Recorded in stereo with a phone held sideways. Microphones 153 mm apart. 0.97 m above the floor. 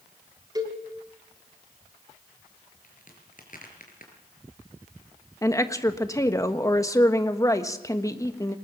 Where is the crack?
60° left (ahead or behind), 5 m.